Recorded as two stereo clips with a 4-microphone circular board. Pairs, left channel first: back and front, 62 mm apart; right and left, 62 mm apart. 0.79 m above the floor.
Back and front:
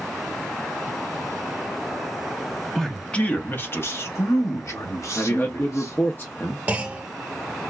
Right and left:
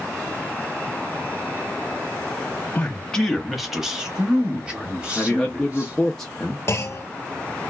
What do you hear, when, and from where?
2.8 s a man speaking: 100° right, 0.6 m; by 6.0 s 155° left, 1.9 m
5.2 s a man speaking: 165° right, 0.6 m
6.7 s a clunk: 60° right, 0.8 m